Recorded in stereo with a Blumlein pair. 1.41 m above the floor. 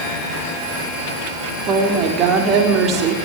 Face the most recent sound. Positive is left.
turn(degrees=-30)